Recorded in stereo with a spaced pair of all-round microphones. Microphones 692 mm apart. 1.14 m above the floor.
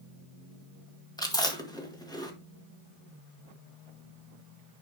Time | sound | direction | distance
1.2 | chewing | 5° left (ahead or behind) | 1.6 m